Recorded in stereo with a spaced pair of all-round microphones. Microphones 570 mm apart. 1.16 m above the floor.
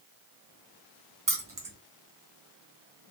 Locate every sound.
1.3 s keys jangling: 35° right (ahead or behind), 0.7 m